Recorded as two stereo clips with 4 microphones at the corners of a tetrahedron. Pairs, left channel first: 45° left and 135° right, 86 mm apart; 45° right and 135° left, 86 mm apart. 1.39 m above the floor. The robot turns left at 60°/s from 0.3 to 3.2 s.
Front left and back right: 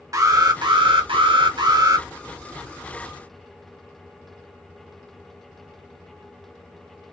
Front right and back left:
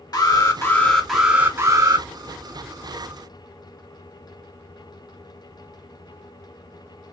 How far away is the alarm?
About 1.6 m.